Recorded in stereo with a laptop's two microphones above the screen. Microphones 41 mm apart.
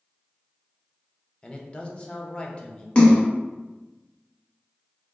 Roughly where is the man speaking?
Left.